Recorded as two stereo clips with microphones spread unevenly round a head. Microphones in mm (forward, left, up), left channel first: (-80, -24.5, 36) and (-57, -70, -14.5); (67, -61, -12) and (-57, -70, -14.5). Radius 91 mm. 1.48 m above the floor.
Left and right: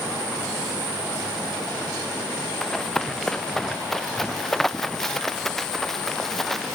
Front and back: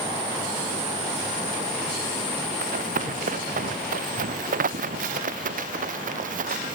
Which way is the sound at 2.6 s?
170° right.